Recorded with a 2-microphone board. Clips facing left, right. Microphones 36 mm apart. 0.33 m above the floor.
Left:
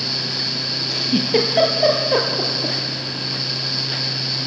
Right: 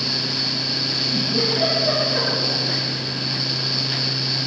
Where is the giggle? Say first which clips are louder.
Left 7 dB; 75° left (ahead or behind), 4.5 m.